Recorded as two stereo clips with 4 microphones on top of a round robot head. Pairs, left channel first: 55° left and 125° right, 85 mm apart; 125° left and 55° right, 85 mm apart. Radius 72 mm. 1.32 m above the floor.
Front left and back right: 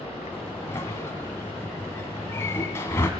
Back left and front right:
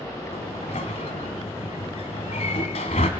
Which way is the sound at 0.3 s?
120° left.